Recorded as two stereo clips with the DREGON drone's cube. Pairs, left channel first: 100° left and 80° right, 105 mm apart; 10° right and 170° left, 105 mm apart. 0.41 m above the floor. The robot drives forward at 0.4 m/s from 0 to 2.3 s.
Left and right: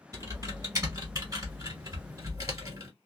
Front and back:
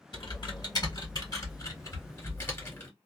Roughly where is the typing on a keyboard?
Ahead right.